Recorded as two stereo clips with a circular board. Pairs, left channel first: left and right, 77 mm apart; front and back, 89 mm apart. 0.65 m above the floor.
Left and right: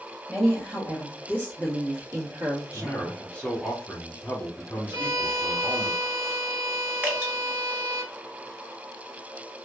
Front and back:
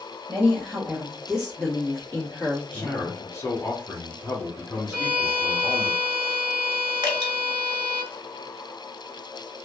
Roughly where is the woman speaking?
Behind.